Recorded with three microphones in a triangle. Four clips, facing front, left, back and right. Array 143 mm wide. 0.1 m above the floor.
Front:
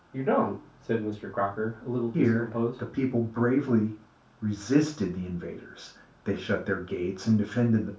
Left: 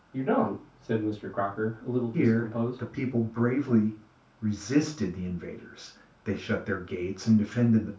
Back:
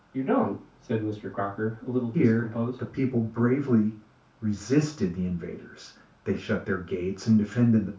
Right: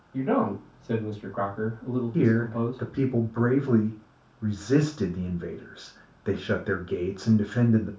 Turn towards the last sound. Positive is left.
turn(degrees=-70)